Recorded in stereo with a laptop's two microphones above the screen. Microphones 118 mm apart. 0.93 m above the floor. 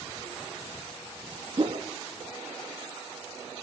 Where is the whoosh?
45° right (ahead or behind), 1.3 m.